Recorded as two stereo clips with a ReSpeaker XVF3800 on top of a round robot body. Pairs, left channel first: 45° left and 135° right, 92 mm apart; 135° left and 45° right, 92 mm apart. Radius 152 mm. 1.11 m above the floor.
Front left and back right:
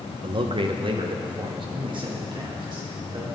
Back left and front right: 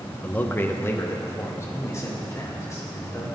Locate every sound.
0.2 s a man speaking: 155° right, 1.2 m; by 3.2 s 170° right, 4.5 m